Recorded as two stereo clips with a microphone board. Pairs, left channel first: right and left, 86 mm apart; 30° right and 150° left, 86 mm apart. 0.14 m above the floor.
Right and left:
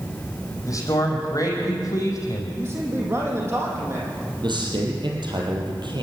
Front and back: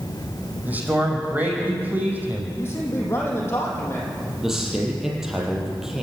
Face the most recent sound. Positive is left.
turn(degrees=65)